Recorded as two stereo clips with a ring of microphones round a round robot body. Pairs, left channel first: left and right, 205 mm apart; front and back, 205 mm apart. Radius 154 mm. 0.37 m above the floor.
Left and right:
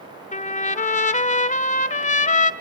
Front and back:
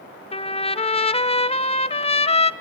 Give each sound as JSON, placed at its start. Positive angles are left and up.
{"t": 0.3, "sound": "a trumpet", "azimuth_deg": 50, "distance_m": 1.1}